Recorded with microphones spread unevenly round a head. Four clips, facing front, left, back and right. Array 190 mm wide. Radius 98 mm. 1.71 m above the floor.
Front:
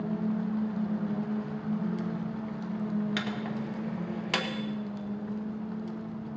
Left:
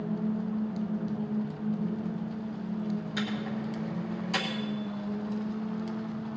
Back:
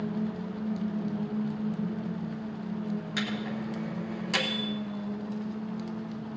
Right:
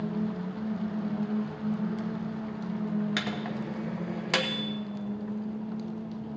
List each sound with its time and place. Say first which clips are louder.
3.2 s a microwave: even, even; 75° right, 1.3 m